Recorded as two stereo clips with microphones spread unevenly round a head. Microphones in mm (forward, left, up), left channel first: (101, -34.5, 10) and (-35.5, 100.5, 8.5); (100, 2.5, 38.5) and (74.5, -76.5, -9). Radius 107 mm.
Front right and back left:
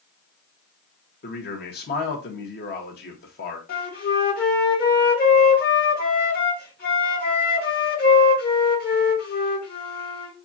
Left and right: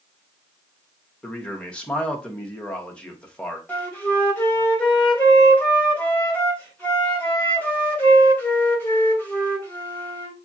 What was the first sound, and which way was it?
A man speaking, 10° right.